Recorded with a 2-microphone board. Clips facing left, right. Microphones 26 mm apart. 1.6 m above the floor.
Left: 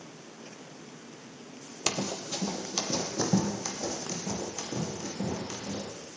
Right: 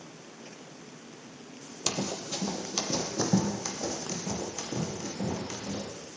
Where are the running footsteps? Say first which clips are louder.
Left 1 dB; 25° left (ahead or behind), 2 m; by 5.8 s 30° right (ahead or behind), 6.5 m.